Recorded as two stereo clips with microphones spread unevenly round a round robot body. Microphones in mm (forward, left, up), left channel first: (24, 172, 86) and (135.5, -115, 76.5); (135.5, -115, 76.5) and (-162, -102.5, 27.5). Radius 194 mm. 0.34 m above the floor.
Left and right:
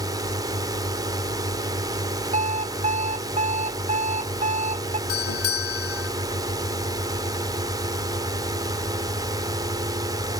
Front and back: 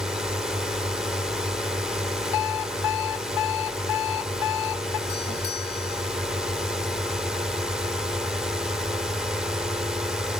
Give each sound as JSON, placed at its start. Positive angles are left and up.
{"t": 0.0, "sound": "a drone", "azimuth_deg": -120}
{"t": 2.3, "sound": "an alarm clock", "azimuth_deg": 0}
{"t": 5.1, "sound": "a doorbell", "azimuth_deg": 75}